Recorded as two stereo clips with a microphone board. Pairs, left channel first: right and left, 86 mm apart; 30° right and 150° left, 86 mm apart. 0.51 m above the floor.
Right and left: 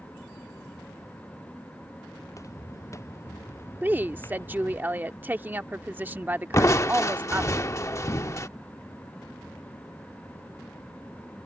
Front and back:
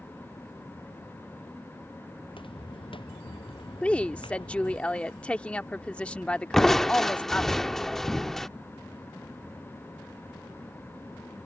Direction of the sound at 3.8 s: 40° left.